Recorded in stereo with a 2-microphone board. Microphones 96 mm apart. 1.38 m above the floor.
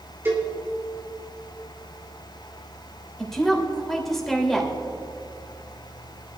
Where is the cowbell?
25° right (ahead or behind), 3.5 m.